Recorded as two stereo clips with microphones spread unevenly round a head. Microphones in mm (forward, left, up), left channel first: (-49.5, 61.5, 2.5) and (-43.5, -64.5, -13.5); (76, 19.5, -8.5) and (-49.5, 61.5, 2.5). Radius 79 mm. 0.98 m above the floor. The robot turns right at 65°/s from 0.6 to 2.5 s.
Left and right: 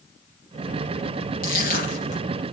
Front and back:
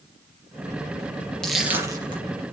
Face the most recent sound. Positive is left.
turn(degrees=135)